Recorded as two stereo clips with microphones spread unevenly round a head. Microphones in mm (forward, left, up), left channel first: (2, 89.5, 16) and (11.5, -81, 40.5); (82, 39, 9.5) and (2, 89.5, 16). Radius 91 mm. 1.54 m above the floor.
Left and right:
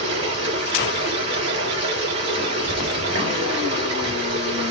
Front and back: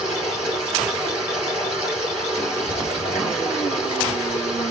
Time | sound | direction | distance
0.0 | running water | 140° right | 3 m